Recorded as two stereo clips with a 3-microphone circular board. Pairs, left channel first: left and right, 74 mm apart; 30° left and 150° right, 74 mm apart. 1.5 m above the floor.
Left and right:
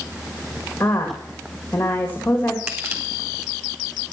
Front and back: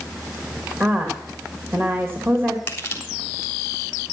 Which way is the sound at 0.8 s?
155° left.